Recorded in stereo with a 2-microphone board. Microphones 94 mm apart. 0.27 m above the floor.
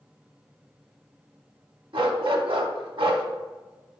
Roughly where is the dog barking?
Right.